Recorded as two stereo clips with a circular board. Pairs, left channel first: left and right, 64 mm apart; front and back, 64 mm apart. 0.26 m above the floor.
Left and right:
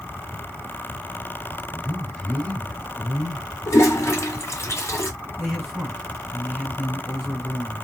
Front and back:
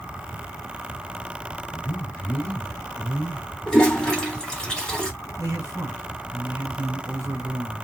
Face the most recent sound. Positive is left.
turn(degrees=180)